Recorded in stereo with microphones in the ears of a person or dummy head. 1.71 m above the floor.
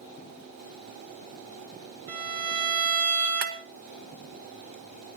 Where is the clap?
50° right (ahead or behind), 0.8 m.